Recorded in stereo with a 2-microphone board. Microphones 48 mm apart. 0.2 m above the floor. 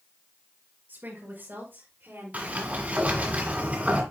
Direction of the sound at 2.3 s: 35° right (ahead or behind).